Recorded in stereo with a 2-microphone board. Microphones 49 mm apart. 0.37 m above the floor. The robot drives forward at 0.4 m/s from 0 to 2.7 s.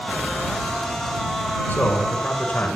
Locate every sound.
1.7 s a man speaking: 35° left (ahead or behind), 1.7 m; by 2.7 s 30° left (ahead or behind), 1.8 m